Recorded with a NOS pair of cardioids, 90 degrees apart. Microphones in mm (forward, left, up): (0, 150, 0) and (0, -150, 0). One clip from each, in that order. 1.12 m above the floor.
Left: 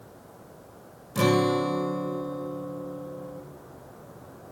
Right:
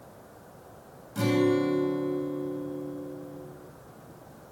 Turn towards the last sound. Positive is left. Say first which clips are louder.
# left 2 dB
turn(degrees=50)